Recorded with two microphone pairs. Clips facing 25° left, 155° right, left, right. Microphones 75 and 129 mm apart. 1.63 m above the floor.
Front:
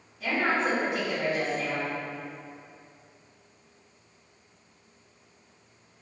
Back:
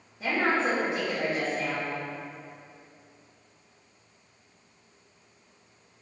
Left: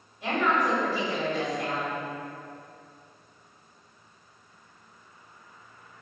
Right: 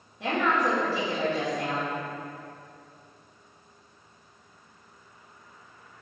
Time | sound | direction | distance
0.2 | a woman speaking | 95° right | 1.5 m